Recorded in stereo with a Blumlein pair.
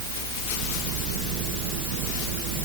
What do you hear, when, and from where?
Only background noise.